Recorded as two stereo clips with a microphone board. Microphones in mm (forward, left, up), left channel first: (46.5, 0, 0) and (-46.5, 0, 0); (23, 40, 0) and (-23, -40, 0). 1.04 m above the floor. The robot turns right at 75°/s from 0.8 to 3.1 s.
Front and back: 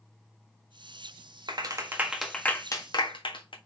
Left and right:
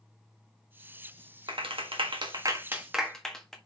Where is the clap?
145° right, 1.5 m; by 3.5 s 25° right, 1.5 m.